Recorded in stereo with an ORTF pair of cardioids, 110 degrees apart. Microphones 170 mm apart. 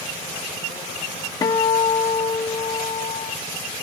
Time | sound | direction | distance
1.4 | a guitar | 20° left | 0.7 m